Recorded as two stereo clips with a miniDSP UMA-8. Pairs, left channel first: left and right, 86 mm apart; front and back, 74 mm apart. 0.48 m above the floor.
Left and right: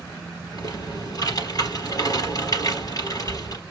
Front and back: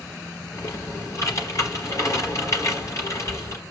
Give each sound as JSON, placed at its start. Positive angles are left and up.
{"t": 0.5, "sound": "typing on a keyboard", "azimuth_deg": 50, "distance_m": 4.5}